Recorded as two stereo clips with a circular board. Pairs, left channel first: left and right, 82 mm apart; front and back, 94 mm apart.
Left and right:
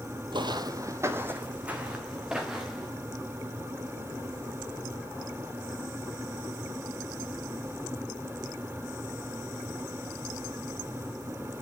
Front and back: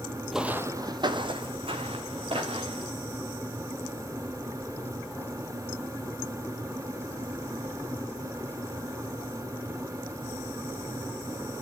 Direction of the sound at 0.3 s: 90° right.